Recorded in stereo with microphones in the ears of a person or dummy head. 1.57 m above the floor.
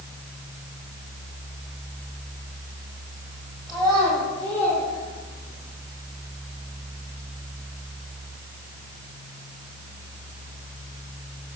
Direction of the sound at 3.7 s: 5° right (ahead or behind).